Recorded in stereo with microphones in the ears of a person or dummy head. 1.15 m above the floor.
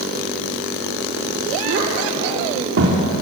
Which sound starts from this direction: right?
A child speaking, at 1.6 s.